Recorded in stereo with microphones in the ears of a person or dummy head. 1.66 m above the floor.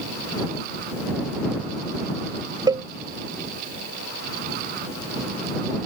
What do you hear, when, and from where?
2.7 s a cowbell: 20° right (ahead or behind)